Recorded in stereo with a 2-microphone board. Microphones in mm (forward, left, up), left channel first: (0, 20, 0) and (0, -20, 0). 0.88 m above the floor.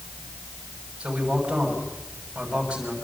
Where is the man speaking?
25° right (ahead or behind), 6.5 m.